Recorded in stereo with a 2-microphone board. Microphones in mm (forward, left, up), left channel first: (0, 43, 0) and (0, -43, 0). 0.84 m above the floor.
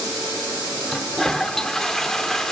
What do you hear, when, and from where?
0.9 s a toilet flushing: 5° left (ahead or behind), 1.4 m